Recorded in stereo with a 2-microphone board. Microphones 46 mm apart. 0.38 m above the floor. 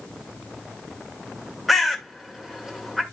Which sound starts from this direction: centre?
A bird, at 1.7 s.